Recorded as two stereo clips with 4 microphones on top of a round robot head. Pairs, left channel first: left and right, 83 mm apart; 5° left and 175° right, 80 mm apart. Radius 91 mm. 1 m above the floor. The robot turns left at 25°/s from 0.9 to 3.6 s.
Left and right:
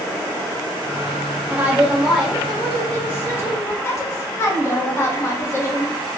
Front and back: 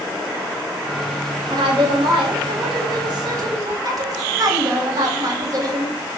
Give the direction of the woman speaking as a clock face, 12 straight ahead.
5 o'clock.